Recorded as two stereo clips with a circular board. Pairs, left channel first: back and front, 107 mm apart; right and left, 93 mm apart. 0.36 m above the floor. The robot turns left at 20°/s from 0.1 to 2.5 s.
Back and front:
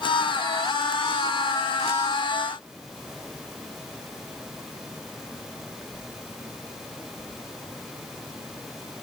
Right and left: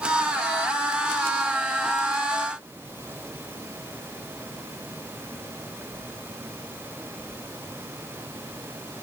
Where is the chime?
I don't hear a chime.